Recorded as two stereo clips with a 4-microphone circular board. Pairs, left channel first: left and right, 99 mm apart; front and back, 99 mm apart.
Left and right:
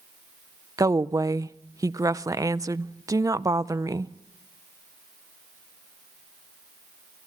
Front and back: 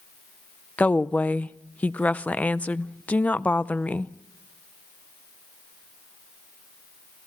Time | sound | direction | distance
0.8 | a woman speaking | 65° right | 0.5 m